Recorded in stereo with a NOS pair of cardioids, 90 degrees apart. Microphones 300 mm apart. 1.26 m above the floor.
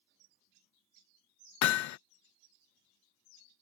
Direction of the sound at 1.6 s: 60° left.